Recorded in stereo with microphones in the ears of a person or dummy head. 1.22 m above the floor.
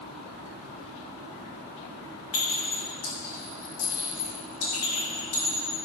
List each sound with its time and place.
2.3 s a clink: 65° left (ahead or behind), 2 m